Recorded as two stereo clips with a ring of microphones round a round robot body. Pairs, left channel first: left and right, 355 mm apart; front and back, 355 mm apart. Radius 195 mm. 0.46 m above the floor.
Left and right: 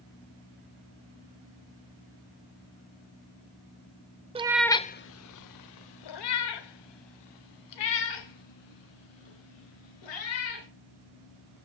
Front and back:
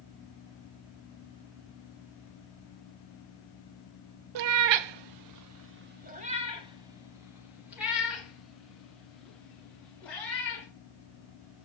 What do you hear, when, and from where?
4.3 s a cat meowing: 165° right, 0.6 m; by 10.7 s 85° left, 3.5 m